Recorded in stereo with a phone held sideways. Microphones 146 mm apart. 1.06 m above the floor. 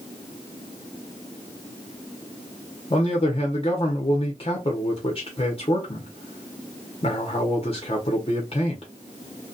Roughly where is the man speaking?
Left.